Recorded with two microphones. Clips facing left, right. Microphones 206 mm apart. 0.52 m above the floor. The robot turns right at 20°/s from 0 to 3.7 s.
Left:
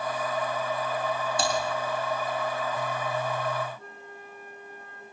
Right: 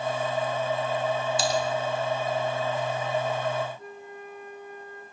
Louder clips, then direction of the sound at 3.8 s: Right 4 dB; 15° right (ahead or behind).